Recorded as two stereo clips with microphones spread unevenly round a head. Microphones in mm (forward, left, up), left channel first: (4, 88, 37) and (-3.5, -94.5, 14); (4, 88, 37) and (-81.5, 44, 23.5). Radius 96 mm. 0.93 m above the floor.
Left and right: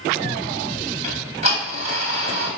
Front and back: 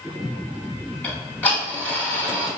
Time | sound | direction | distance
1.0 | ticking | 40° right | 1.0 m